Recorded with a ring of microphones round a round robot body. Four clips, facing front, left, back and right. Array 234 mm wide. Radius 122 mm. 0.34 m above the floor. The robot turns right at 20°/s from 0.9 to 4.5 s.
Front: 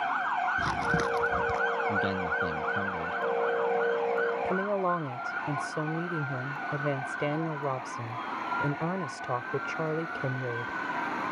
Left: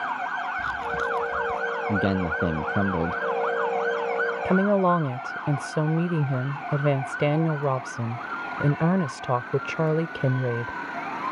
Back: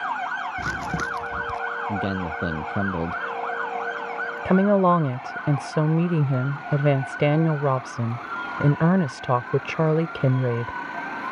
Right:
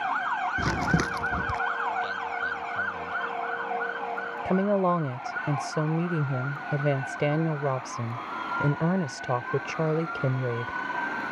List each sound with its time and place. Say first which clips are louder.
0.6 s crumpling: right 1 dB, even; 95° right; by 1.6 s 80° right
1.9 s a man speaking: left 5 dB, back 2 dB; 110° left; by 3.2 s 135° left
4.5 s a woman speaking: left 2 dB, back 10 dB; 165° left